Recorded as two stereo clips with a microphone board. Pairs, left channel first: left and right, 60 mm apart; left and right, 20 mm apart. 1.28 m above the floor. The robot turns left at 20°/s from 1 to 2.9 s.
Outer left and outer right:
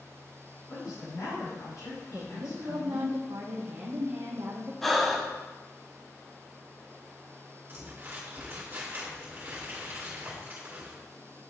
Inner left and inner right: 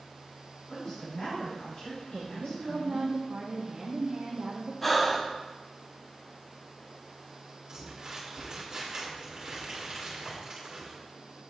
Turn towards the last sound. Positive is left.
turn(degrees=-35)  # may be behind; listen again after turning